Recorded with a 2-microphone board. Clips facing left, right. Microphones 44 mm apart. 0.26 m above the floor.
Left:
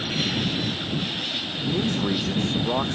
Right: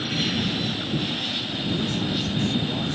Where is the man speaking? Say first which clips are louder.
Left 3 dB; 65° left (ahead or behind).